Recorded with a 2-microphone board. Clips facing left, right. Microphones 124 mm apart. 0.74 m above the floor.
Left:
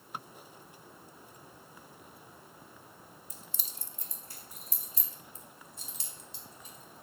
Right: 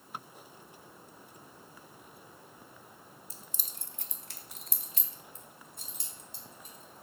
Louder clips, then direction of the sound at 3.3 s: Even; 30° right (ahead or behind).